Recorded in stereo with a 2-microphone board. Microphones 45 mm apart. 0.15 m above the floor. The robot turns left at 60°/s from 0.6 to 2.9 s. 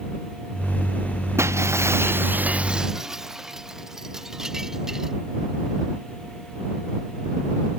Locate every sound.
1.4 s breaking glass: 75° right; by 5.1 s 170° right